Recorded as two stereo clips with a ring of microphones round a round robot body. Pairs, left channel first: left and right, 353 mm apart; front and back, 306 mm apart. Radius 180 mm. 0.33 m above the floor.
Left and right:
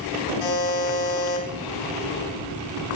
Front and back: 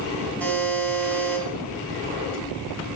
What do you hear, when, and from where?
0.4 s a buzzer: 85° left, 3.5 m